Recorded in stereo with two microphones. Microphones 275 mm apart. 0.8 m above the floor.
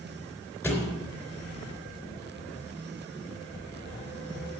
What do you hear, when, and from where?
0.6 s a thud: 5° left (ahead or behind), 3.5 m